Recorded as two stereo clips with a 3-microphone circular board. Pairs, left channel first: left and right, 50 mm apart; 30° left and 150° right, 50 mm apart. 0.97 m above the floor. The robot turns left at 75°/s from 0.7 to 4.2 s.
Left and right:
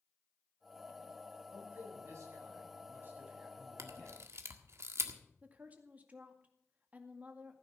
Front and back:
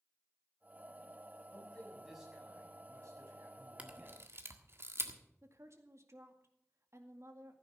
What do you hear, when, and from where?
1.5 s a man speaking: 20° right, 6.5 m; by 4.2 s 140° left, 6.5 m
3.8 s a camera shutter: 85° right, 1.6 m; by 5.2 s 115° right, 1.6 m
5.4 s a woman speaking: 145° right, 2 m